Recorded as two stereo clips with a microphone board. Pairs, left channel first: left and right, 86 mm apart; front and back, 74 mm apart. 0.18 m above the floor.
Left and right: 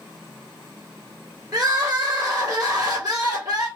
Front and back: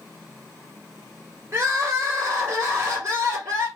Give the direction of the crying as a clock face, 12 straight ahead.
4 o'clock.